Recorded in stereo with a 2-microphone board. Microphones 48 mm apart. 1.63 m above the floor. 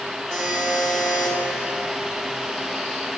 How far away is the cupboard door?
I don't hear a cupboard door.